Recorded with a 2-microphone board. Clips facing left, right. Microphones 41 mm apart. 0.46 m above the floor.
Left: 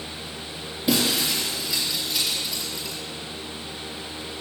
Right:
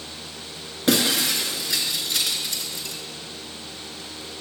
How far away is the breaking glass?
About 3 m.